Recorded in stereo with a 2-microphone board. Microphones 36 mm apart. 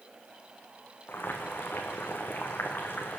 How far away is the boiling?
About 3.5 m.